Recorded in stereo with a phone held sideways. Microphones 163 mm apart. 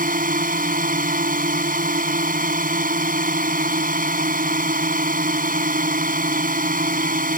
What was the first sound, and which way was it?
A drone, 55° right (ahead or behind).